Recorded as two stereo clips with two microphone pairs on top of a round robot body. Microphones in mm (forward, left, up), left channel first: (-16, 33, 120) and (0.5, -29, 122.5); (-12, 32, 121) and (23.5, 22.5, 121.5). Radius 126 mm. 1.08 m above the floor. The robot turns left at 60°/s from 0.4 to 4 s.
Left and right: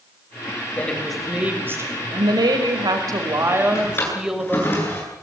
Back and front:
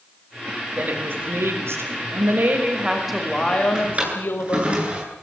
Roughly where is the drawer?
Ahead left.